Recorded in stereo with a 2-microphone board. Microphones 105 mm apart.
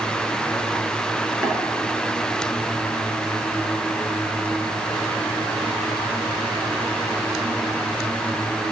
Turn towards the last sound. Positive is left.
turn(degrees=-5)  # may be behind; listen again after turning